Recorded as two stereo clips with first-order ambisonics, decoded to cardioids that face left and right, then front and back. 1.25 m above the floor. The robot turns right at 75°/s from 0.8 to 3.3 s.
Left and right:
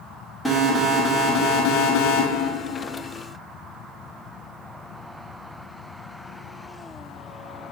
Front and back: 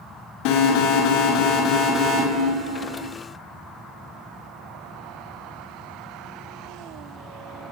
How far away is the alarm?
About 6 m.